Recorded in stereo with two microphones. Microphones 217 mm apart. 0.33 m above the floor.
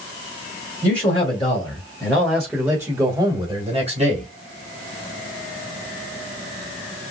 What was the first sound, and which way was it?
A man speaking, 30° left (ahead or behind).